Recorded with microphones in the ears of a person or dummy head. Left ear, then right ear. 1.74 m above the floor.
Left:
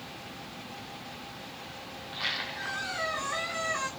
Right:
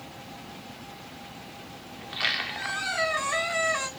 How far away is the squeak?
About 1.4 m.